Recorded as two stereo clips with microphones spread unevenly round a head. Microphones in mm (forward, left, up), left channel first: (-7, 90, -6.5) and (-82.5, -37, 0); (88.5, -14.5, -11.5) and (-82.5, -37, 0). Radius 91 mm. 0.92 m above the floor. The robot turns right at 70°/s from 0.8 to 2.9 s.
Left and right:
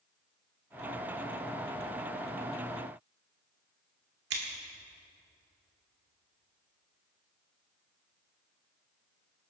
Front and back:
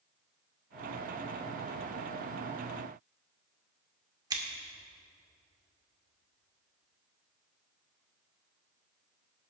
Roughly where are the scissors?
Right.